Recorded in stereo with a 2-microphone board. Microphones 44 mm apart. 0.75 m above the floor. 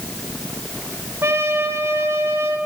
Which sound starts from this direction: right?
A trumpet, at 1.2 s.